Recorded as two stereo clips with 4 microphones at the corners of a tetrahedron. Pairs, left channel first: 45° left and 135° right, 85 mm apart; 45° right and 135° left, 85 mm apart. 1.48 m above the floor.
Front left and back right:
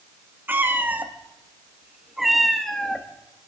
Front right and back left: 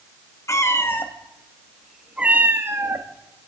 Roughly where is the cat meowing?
Right.